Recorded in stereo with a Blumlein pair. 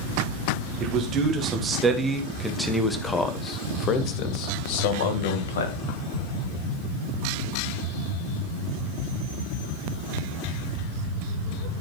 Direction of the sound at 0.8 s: 30° right.